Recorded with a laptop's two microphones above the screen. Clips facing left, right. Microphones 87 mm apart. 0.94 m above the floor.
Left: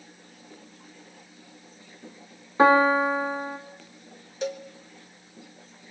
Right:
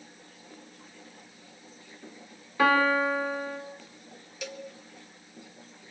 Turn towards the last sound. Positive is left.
turn(degrees=35)  # may be behind; listen again after turning